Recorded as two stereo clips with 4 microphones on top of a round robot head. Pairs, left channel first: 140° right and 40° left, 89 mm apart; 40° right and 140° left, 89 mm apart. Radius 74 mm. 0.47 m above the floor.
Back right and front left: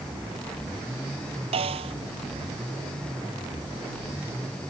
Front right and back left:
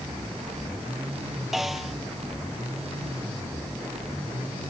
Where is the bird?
No bird in this recording.